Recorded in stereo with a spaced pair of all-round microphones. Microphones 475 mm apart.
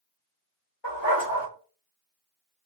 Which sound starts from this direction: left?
A dog barking, at 0.8 s.